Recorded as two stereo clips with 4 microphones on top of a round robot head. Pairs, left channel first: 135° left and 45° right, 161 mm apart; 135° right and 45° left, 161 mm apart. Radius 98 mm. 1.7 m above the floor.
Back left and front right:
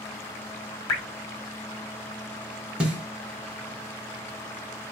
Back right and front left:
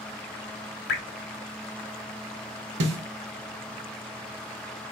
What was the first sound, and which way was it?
Dripping, 155° right.